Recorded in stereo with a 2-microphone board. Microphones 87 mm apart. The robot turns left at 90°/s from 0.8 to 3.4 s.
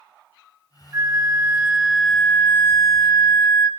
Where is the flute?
80° right, 0.6 m; by 3.7 s 55° left, 0.6 m.